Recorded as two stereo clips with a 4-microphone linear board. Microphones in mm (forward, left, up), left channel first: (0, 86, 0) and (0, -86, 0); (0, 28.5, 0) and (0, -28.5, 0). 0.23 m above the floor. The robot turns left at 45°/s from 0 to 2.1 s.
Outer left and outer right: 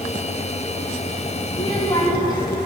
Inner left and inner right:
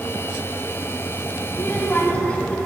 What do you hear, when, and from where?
1.5 s a child speaking: 30° left (ahead or behind), 0.6 m; by 2.6 s 25° left (ahead or behind), 0.6 m